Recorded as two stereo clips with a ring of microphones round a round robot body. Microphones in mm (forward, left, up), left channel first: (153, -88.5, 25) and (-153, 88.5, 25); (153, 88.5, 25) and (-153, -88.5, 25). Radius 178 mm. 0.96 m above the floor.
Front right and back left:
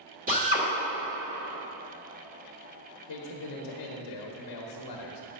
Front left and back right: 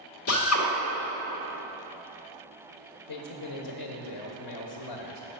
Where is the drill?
80° left, 1.8 m.